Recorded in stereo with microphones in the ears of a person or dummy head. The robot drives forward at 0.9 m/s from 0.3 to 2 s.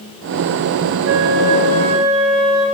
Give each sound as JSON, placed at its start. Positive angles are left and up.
{"t": 1.1, "sound": "a flute", "side_deg": -60, "distance_m": 0.8}